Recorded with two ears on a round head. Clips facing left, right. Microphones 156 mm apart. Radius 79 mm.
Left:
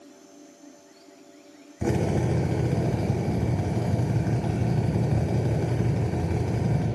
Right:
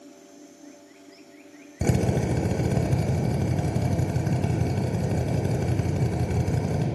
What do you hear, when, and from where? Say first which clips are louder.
1.8 s a drill: even; 45° right (ahead or behind), 1.3 m